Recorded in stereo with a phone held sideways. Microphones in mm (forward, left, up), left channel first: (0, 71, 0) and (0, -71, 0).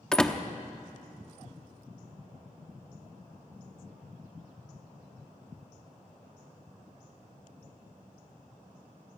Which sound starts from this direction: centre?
A door slam, at 0.1 s.